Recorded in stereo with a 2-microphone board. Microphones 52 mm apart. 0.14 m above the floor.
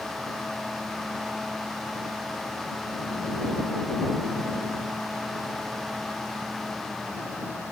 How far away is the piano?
No piano in this recording.